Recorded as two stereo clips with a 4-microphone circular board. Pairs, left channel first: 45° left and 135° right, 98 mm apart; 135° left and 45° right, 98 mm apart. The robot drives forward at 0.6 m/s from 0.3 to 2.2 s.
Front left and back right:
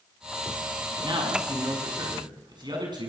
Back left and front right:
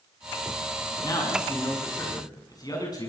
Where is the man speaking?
175° right, 7 m.